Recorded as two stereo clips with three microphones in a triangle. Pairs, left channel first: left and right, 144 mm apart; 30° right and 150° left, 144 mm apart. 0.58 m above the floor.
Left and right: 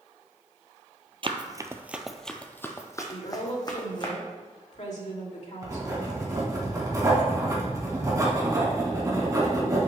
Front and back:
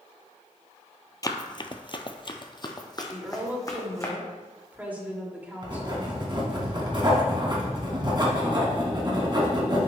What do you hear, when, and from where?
1.2 s running footsteps: 75° right, 0.7 m; by 4.1 s 35° left, 1.9 m
3.1 s a woman speaking: 75° left, 1.9 m
5.6 s writing: 155° right, 2.5 m